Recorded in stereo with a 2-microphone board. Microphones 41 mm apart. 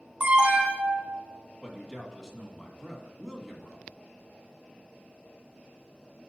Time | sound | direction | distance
0.2 | an alarm | 30° right (ahead or behind) | 2 m
1.6 | a man speaking | 10° left (ahead or behind) | 1.7 m